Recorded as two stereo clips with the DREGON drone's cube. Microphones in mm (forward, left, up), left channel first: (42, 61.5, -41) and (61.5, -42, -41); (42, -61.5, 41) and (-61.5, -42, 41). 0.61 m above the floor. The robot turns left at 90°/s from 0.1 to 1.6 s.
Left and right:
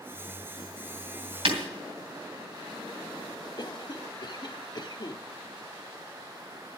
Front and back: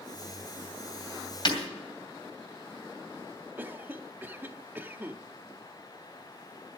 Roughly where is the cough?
Left.